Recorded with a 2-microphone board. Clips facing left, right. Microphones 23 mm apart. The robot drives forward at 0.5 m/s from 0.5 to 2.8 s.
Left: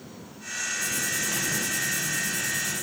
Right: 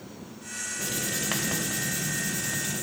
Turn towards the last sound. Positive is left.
turn(degrees=-25)  # may be behind; listen again after turning